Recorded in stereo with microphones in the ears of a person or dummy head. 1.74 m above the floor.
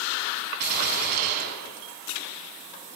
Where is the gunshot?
45° right (ahead or behind), 7 m.